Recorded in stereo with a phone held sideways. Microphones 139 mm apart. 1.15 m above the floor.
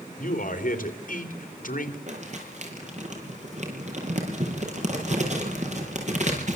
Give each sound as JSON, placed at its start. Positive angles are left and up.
{"t": 0.2, "sound": "a man speaking", "side_deg": 65, "distance_m": 3.5}
{"t": 2.1, "sound": "crumpling", "side_deg": -50, "distance_m": 7.5}